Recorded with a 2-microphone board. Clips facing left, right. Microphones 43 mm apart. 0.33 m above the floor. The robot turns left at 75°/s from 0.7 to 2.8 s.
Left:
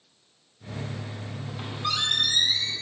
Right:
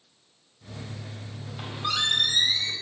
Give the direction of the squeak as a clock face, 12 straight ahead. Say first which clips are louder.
Even; 12 o'clock.